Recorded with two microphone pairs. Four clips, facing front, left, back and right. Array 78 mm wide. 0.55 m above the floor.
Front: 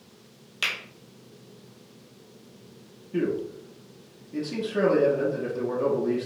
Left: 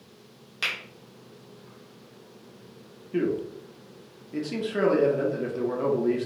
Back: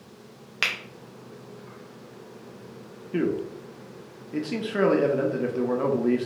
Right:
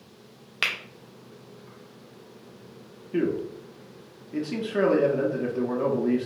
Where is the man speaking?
Straight behind, 0.8 m.